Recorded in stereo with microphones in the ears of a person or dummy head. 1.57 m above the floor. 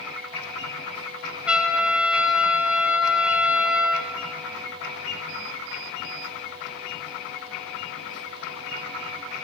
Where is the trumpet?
5° right (ahead or behind), 0.7 m.